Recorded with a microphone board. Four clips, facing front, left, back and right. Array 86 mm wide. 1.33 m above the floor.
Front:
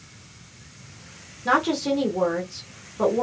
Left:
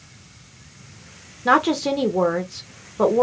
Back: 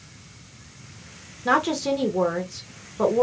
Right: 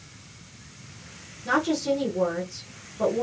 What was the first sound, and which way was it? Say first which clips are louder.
A woman speaking: left 6 dB, even; 100° left.